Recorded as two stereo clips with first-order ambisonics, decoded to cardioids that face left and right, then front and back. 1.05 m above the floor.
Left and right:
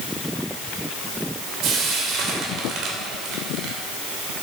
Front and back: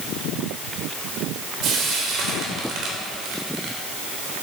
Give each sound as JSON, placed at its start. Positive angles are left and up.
{"t": 1.6, "sound": "frying", "azimuth_deg": -135, "distance_m": 2.5}